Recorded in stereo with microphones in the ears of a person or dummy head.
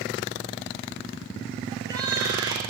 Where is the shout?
20° right (ahead or behind), 9 m.